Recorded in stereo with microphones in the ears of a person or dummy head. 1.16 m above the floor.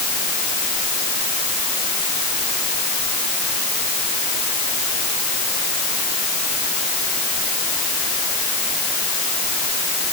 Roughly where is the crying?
I don't hear crying.